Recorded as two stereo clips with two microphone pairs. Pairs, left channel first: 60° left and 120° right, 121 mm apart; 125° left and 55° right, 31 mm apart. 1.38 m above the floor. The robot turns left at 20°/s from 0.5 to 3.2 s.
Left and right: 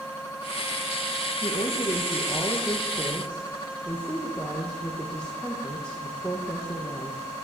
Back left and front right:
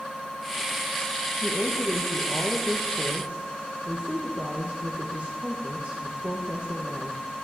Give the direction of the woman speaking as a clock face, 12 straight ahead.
12 o'clock.